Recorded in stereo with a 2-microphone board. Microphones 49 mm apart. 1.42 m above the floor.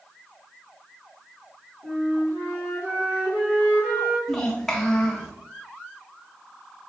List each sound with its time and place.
1.8 s a flute: 50° right (ahead or behind), 2 m
4.3 s a child speaking: 5° left (ahead or behind), 1.1 m